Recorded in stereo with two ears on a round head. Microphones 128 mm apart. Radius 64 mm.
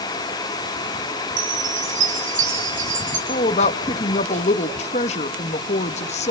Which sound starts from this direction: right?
A chime, at 1.4 s.